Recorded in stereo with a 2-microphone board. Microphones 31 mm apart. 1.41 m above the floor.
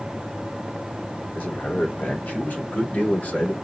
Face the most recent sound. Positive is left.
turn(degrees=65)  # may be behind; listen again after turning